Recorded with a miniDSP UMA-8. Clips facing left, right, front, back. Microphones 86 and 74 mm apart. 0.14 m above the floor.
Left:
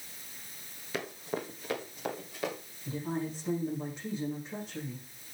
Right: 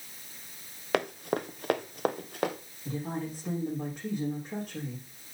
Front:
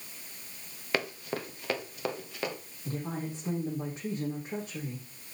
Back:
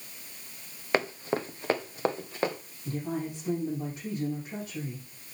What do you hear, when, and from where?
0.9 s running footsteps: 115° right, 1.6 m; by 2.6 s 120° right, 2.5 m
2.9 s a woman speaking: 55° right, 6.5 m